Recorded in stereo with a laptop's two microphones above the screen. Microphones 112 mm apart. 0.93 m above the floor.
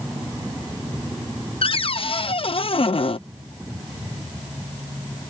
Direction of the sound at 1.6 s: 55° left (ahead or behind).